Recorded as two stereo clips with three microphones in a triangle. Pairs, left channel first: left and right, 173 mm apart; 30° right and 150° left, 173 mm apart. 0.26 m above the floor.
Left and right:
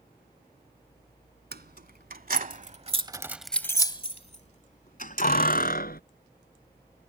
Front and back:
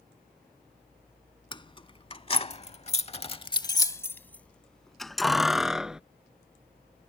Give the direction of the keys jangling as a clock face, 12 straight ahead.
3 o'clock.